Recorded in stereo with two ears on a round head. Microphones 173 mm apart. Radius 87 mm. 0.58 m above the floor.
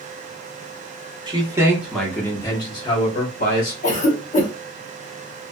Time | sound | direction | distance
1.3 | a man speaking | 25° right (ahead or behind) | 1.0 m
3.8 | a cough | 40° left (ahead or behind) | 1.3 m